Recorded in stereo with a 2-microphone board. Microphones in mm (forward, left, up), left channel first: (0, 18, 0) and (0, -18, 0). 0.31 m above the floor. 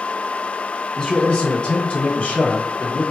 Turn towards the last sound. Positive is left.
turn(degrees=35)  # may be behind; listen again after turning